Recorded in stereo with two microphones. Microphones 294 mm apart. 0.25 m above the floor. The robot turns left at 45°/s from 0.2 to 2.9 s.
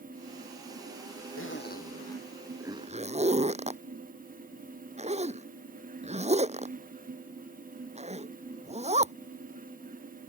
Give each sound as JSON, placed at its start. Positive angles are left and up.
{"t": 1.4, "sound": "a zipper", "side_deg": 45}